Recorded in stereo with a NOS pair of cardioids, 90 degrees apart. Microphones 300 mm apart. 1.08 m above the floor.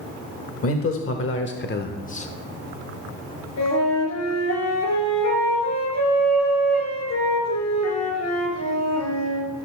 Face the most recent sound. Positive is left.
turn(degrees=65)